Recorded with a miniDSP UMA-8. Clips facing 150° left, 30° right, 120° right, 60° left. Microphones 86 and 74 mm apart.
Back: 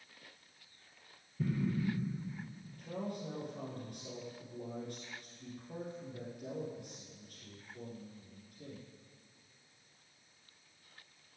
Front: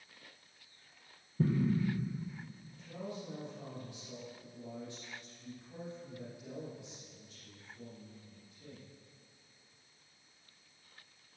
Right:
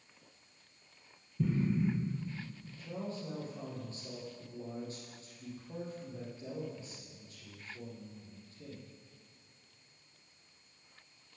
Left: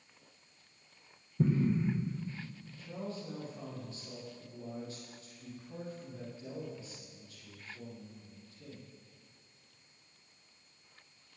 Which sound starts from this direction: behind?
A man speaking, at 2.8 s.